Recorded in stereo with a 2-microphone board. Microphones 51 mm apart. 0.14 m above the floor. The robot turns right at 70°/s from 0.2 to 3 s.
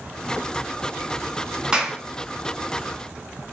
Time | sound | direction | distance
1.7 | a clap | 15° right (ahead or behind) | 0.9 m